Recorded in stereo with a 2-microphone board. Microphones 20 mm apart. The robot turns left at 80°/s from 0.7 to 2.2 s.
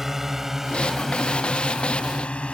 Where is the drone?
15° right (ahead or behind); by 2.5 s 70° left (ahead or behind).